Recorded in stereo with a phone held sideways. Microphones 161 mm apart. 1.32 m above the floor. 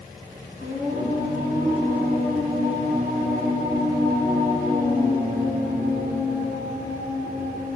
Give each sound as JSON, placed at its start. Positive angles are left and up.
{"t": 0.6, "sound": "singing", "side_deg": -65, "distance_m": 3.0}